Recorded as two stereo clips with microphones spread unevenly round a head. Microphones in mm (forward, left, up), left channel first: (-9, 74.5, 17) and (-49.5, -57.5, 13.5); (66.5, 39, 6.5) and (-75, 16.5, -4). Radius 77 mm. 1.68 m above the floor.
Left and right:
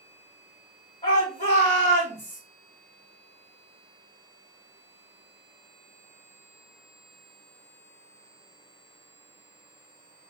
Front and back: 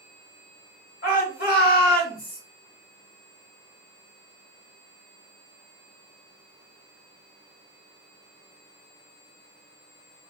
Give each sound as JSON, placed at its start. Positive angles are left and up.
{"t": 1.0, "sound": "a shout", "azimuth_deg": 15, "distance_m": 1.9}